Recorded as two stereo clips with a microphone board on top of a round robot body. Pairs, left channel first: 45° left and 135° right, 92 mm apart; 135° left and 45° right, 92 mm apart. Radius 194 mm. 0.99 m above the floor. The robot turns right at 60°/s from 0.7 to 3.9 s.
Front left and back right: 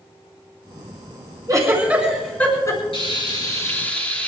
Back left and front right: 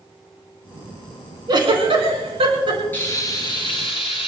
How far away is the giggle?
About 4.5 m.